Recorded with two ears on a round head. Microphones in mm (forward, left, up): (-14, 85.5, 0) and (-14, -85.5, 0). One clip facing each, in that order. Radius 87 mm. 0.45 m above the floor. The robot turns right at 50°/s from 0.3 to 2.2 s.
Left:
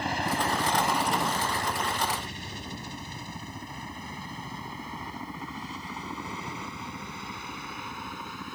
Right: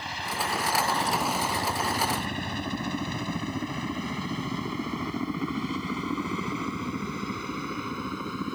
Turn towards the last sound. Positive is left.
turn(degrees=-75)  # may be behind; listen again after turning